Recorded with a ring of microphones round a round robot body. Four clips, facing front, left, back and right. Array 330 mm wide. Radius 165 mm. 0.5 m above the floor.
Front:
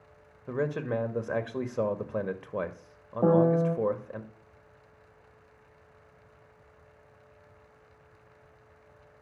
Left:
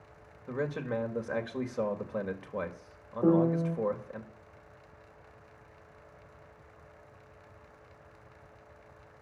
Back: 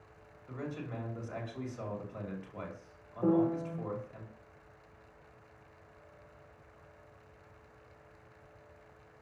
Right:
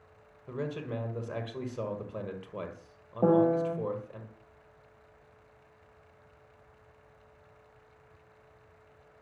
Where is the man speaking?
10° left, 2 m.